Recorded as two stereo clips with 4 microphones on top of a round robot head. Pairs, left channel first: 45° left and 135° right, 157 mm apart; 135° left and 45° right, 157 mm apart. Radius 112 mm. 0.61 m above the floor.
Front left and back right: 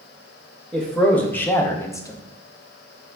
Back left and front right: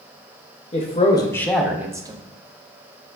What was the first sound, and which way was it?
A man speaking, 130° left.